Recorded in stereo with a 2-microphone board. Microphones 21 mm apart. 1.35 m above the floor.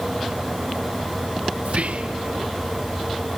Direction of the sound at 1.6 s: 80° right.